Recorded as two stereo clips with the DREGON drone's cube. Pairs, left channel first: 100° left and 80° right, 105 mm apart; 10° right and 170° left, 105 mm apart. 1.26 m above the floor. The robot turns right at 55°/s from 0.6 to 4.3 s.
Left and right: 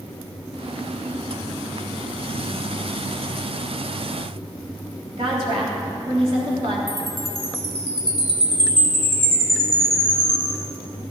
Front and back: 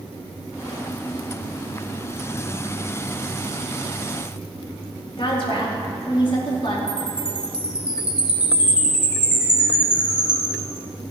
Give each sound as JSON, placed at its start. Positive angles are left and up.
{"t": 5.2, "sound": "a woman speaking", "azimuth_deg": -50, "distance_m": 3.0}
{"t": 6.9, "sound": "a chime", "azimuth_deg": -110, "distance_m": 1.9}